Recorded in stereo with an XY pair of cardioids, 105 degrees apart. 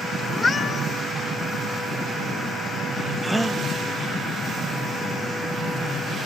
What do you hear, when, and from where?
0.3 s a cat meowing: 25° left, 7.5 m
3.2 s a gasp: 10° right, 1.2 m